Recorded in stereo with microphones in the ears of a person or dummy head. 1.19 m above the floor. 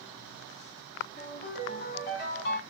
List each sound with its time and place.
1.2 s a ringtone: 40° left (ahead or behind), 1.7 m